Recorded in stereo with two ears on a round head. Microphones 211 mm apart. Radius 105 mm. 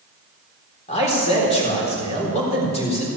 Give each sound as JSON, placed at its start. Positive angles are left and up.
{"t": 0.9, "sound": "a man speaking", "side_deg": 30, "distance_m": 4.0}